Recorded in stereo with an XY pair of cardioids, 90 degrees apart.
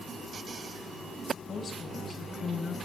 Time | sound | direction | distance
1.5 | a woman speaking | 50° left | 4.5 m